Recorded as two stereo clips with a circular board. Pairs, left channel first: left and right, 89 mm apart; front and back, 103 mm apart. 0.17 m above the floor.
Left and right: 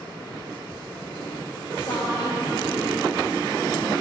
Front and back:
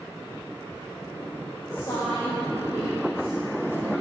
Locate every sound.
1.7 s a woman speaking: 50° left, 4.5 m